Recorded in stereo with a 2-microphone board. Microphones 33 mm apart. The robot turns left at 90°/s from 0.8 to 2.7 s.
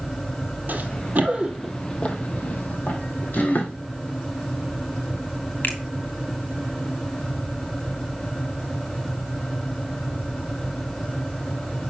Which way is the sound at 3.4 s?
60° left (ahead or behind).